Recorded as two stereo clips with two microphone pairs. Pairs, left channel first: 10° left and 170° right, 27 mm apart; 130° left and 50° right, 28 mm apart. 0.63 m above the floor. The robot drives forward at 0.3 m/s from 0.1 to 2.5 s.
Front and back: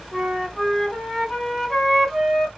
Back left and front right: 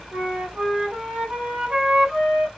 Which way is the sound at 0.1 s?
55° right.